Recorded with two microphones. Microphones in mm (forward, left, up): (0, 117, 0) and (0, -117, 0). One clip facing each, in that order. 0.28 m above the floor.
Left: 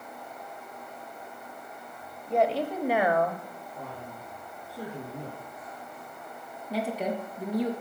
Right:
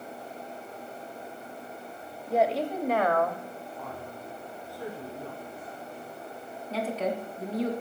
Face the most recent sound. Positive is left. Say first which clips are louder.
# even
turn(degrees=15)  # may be behind; listen again after turning